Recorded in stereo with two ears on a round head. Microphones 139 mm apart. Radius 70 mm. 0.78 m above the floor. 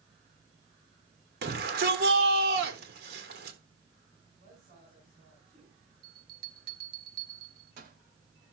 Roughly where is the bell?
Right.